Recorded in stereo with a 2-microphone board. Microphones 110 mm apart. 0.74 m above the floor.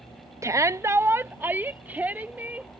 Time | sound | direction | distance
0.4 | a shout | 25° right (ahead or behind) | ?